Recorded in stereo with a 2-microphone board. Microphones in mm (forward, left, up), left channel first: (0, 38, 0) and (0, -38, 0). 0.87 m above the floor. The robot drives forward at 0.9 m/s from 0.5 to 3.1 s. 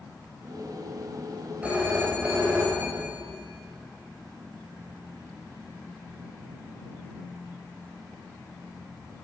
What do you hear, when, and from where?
1.6 s a phone ringing: 15° right (ahead or behind), 3.5 m; by 3.2 s 25° right (ahead or behind), 2.5 m